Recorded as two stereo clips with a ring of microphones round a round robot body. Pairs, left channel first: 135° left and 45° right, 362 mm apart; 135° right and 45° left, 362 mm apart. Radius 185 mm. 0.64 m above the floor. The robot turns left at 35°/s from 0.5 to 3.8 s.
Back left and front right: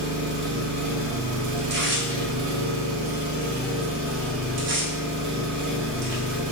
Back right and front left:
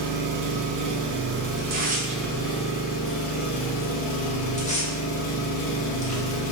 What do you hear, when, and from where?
0.0 s an engine running: 15° left, 0.8 m; by 6.5 s 100° right, 0.8 m
1.6 s tearing paper: straight ahead, 0.8 m; by 6.5 s 75° right, 0.8 m